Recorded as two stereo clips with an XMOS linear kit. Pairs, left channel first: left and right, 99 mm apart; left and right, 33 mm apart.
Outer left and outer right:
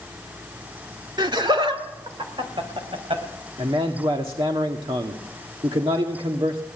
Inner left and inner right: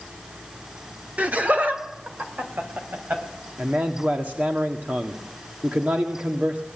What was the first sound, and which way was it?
Laughter, 50° right (ahead or behind).